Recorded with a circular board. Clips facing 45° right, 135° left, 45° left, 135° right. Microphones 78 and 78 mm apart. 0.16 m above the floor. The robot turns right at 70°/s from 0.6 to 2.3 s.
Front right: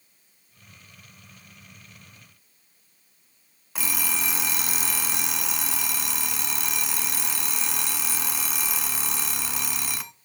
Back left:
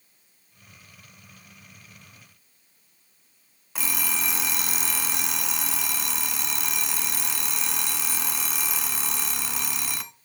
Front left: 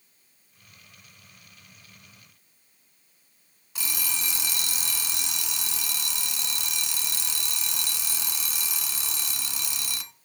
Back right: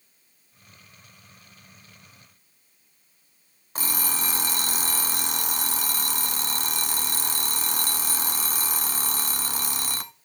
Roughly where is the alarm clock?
Behind right.